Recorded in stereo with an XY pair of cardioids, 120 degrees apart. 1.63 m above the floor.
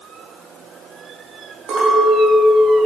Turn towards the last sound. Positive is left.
turn(degrees=-60)